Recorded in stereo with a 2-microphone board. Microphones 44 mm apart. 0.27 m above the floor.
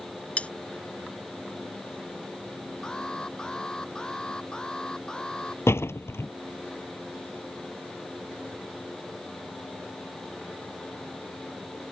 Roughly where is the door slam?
Left.